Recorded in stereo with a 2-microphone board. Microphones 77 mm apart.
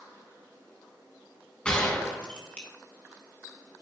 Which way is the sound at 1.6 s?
15° left (ahead or behind).